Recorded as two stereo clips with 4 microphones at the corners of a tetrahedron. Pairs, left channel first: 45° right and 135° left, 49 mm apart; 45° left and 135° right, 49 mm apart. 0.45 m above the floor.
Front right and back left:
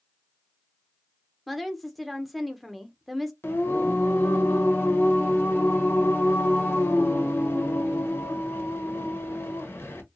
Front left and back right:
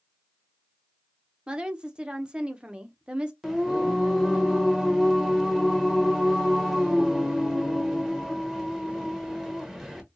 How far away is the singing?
About 1.3 m.